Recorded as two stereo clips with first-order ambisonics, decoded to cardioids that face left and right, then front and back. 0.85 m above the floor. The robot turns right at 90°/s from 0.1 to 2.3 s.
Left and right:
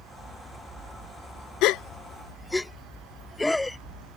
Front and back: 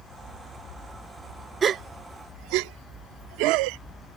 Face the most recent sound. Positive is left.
turn(degrees=175)